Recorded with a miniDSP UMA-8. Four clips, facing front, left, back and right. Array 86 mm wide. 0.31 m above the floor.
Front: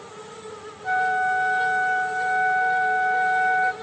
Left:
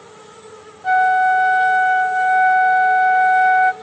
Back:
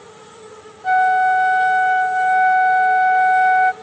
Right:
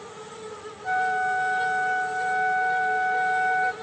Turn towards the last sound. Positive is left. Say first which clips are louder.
# left 10 dB, back 8 dB
turn(degrees=130)